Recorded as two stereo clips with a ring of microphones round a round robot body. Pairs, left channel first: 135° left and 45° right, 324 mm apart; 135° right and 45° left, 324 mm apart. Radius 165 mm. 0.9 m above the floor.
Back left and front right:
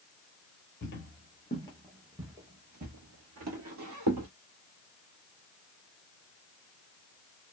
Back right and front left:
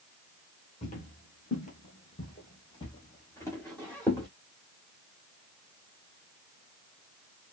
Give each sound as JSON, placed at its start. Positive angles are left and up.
{"t": 0.8, "sound": "footsteps", "azimuth_deg": 170, "distance_m": 1.1}